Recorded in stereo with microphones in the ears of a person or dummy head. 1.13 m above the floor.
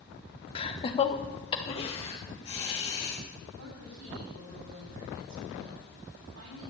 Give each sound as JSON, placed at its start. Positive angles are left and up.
{"t": 0.6, "sound": "laughter", "side_deg": 30, "distance_m": 0.9}
{"t": 3.5, "sound": "a woman speaking", "side_deg": -90, "distance_m": 8.5}